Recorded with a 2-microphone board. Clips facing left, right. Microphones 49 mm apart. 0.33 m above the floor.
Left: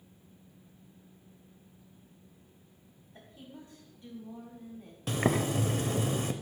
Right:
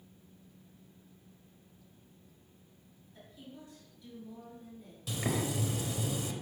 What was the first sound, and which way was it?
A woman speaking, 40° left (ahead or behind).